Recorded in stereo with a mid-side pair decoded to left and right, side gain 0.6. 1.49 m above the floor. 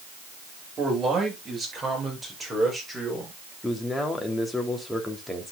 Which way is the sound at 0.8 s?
35° right.